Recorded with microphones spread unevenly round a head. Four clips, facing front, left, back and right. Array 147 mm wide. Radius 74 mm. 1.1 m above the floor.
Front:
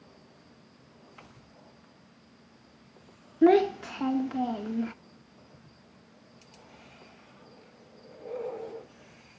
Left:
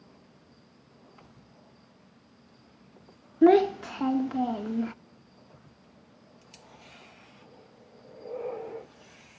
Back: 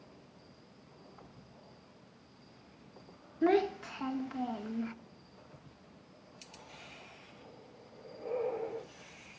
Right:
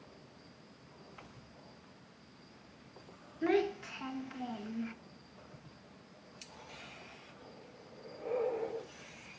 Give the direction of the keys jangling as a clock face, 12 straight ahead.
No keys jangling in this recording.